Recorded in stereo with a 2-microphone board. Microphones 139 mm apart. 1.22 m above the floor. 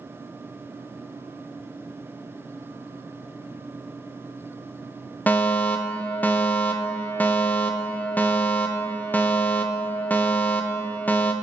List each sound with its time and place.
5.3 s a fire alarm: 10° left (ahead or behind), 1.2 m